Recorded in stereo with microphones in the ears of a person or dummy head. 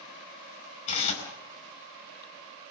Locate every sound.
0.9 s tearing paper: 40° left (ahead or behind), 6 m